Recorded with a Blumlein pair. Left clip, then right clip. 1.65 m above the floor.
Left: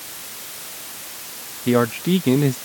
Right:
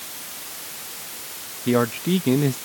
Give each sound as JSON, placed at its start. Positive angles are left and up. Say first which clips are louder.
{"t": 1.7, "sound": "a man speaking", "louder": "left 2 dB", "azimuth_deg": 5}